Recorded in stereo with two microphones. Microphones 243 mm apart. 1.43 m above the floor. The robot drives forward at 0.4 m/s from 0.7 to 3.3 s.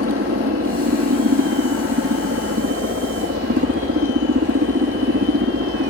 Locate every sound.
0.0 s a helicopter: 65° right (ahead or behind)